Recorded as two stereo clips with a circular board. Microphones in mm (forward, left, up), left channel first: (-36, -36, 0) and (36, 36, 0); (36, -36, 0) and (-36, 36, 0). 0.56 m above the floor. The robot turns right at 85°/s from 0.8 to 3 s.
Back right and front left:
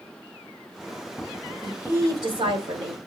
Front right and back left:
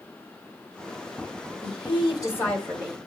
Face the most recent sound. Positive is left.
turn(degrees=70)